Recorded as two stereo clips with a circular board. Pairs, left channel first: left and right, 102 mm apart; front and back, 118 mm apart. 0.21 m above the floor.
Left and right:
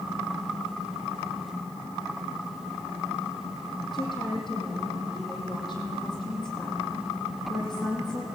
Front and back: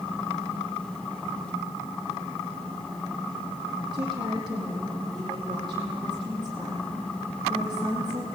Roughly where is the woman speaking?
Behind left.